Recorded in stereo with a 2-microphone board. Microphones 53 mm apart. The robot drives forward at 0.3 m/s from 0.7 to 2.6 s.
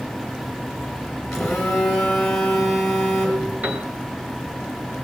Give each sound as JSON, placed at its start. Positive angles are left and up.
{"t": 1.3, "sound": "a phone buzzing", "side_deg": 10, "distance_m": 3.0}
{"t": 3.6, "sound": "a piano", "side_deg": -25, "distance_m": 1.7}